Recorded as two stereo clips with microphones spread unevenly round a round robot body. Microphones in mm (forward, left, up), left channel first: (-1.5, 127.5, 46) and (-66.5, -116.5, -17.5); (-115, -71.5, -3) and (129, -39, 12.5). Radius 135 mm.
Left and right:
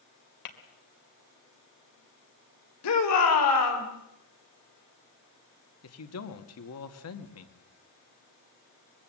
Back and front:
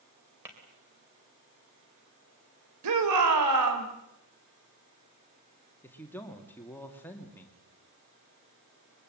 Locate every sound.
0.5 s tapping: 90° left, 3 m
2.8 s a shout: 40° left, 4 m
5.8 s a man speaking: 105° left, 2 m